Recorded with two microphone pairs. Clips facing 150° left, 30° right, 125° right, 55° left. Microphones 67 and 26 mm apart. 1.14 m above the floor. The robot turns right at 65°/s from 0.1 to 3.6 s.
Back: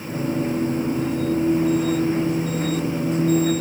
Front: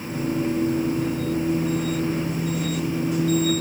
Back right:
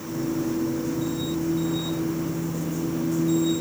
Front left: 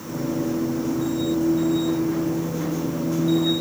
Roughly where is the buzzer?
I don't hear a buzzer.